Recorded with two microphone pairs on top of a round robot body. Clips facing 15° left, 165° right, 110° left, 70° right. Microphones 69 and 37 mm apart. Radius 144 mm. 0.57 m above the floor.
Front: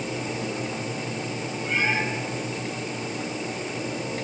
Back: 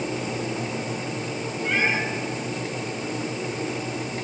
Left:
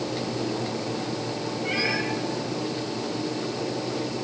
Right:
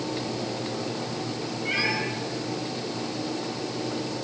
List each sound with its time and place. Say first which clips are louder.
1.6 s a cat meowing: back 2 dB, right 1 dB; 155° right, 7 m